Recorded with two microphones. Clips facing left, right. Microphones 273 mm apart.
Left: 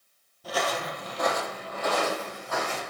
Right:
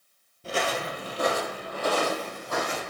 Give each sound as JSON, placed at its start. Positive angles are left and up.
{"t": 0.4, "sound": "footsteps", "side_deg": -30, "distance_m": 1.1}